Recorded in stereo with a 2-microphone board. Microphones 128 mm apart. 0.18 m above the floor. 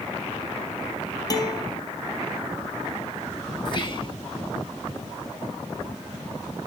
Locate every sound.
1.3 s a guitar: 30° left (ahead or behind), 1.6 m
3.6 s whispering: 40° left (ahead or behind), 2.0 m